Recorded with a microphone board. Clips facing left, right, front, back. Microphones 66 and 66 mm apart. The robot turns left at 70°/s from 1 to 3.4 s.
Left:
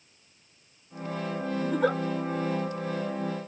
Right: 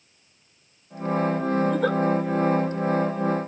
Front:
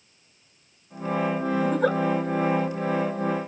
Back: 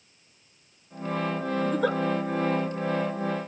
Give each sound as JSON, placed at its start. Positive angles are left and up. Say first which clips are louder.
{"t": 1.6, "sound": "a giggle", "louder": "even, front 2 dB", "azimuth_deg": 30, "distance_m": 1.9}